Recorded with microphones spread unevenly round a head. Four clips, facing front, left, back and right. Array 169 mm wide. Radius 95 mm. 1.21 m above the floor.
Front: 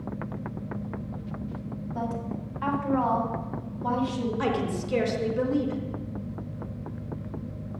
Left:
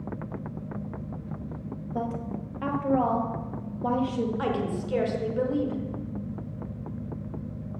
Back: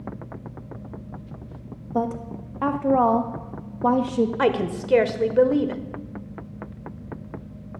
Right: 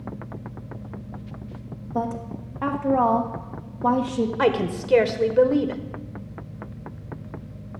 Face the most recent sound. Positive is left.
turn(degrees=-115)